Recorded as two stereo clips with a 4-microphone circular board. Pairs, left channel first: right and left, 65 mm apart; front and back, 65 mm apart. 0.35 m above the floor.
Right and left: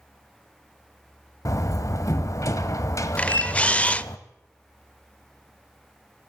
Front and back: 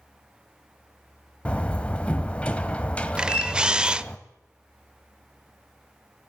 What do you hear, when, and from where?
1.4 s a door slam: 70° right, 1.1 m
3.2 s a camera shutter: 125° right, 0.5 m